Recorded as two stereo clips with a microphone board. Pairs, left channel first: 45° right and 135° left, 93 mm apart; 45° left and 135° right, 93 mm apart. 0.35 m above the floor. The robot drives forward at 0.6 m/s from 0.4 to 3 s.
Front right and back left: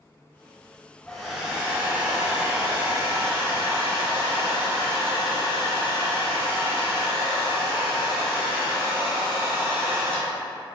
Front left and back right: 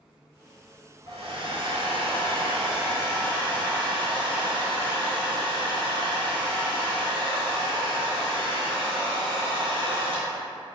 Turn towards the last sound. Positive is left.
turn(degrees=-165)